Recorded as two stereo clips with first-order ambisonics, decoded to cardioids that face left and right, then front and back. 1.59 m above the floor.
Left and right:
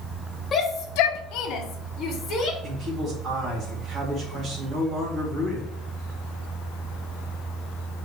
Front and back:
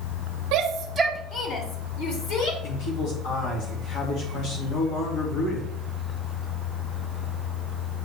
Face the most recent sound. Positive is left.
turn(degrees=-30)